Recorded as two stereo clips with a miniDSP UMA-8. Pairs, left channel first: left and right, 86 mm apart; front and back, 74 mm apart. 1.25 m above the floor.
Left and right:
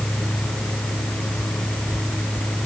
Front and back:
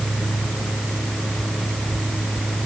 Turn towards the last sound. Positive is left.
No sound to turn to.